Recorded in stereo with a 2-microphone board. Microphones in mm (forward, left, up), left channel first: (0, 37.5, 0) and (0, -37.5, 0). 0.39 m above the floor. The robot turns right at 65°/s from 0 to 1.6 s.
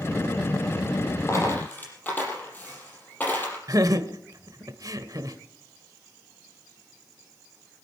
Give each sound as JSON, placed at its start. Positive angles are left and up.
{"t": 1.3, "sound": "a dropped coin", "side_deg": 45, "distance_m": 5.5}
{"t": 3.7, "sound": "laughter", "side_deg": -50, "distance_m": 1.2}